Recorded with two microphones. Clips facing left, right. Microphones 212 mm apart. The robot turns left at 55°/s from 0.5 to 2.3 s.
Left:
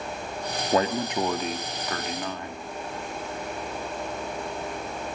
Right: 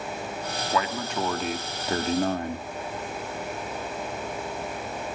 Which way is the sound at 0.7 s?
40° left.